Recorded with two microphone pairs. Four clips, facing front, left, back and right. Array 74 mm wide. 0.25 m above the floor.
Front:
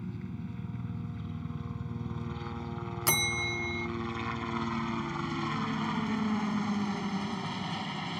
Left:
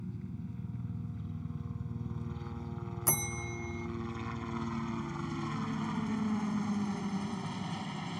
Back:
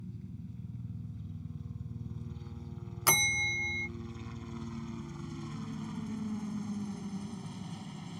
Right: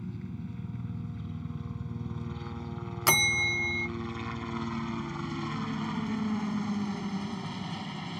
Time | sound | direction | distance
0.0 | a helicopter | 15° right | ?
3.1 | a bell | 115° right | ?